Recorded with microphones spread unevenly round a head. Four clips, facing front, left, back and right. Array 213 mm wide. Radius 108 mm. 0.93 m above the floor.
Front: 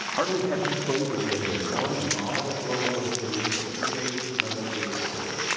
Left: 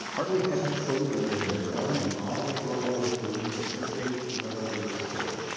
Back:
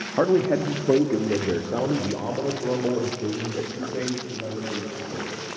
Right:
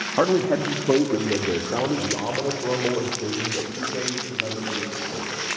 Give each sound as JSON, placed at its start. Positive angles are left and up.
{"t": 0.2, "sound": "a man speaking", "azimuth_deg": -135, "distance_m": 1.4}